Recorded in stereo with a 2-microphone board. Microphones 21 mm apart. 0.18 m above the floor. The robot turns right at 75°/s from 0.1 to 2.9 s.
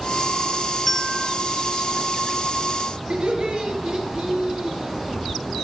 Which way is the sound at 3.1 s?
60° right (ahead or behind).